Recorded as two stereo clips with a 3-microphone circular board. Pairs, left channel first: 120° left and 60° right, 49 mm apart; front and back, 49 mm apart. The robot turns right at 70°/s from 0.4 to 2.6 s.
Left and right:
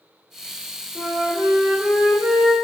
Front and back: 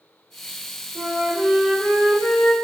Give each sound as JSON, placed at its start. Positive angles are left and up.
{"t": 0.9, "sound": "a flute", "azimuth_deg": -150, "distance_m": 2.0}